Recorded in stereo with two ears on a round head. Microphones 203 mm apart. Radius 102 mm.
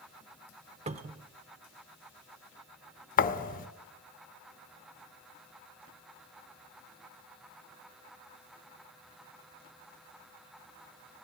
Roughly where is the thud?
Left.